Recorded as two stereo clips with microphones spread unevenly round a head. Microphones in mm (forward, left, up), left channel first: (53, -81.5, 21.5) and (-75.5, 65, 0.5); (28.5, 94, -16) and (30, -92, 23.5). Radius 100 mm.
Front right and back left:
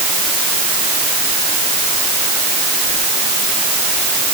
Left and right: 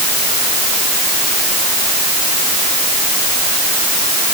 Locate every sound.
Only background noise.